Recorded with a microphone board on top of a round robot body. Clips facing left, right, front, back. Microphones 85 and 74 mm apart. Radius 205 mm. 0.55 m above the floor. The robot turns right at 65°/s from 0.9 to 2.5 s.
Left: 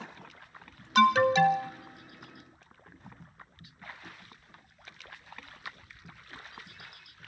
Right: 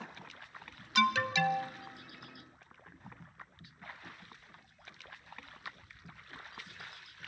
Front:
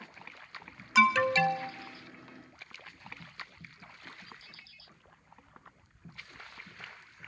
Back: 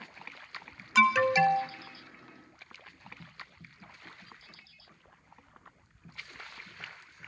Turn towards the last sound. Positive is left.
turn(degrees=-175)